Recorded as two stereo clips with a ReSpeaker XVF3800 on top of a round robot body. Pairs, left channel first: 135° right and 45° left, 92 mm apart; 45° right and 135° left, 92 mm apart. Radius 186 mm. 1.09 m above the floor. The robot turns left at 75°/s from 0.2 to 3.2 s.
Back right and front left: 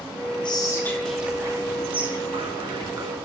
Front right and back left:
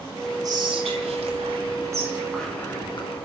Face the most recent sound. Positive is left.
turn(degrees=-20)